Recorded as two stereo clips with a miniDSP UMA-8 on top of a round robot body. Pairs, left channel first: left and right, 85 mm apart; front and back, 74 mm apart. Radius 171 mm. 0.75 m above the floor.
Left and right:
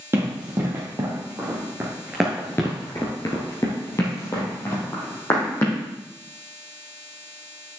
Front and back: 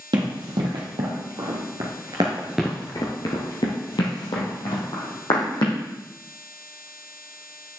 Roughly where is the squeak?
I don't hear a squeak.